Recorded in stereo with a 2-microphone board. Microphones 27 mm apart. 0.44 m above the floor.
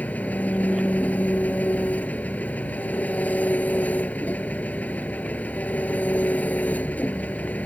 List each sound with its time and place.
0.0 s an engine running: 85° left